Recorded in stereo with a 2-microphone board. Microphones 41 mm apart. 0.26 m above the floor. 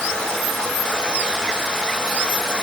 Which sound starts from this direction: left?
Running water, at 0.0 s.